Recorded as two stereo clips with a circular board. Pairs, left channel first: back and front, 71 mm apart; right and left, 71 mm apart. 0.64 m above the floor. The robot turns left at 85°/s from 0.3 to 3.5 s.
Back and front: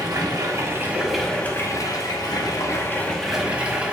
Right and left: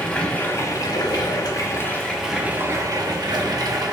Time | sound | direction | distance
0.0 | running water | 15° right | 0.9 m